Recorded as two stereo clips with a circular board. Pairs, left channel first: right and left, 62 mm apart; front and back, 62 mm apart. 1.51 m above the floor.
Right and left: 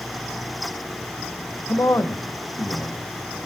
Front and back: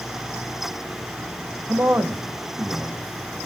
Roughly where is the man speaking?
Behind right.